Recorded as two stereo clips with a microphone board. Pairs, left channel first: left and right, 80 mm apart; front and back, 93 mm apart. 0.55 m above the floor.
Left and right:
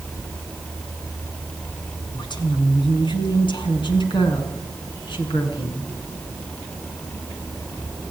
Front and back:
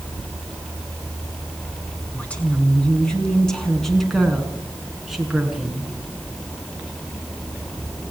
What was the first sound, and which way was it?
A woman speaking, 75° left.